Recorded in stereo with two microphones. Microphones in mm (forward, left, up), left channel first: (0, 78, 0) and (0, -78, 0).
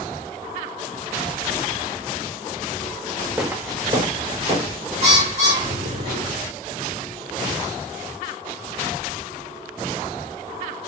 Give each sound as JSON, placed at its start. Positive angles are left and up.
{"t": 3.4, "sound": "footsteps", "side_deg": -5, "distance_m": 0.8}
{"t": 5.0, "sound": "a bird", "side_deg": -50, "distance_m": 2.5}